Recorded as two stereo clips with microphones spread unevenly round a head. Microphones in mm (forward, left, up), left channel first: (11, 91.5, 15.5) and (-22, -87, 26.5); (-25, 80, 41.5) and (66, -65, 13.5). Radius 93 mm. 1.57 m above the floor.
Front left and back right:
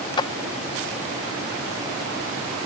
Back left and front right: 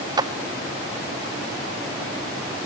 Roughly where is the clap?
Ahead.